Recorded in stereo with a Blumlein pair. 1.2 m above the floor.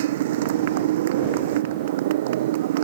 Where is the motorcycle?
55° right.